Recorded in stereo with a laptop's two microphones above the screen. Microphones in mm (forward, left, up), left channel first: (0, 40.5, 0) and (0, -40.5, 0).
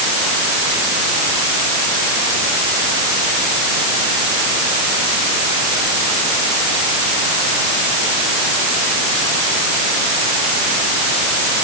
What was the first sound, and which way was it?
Only background noise.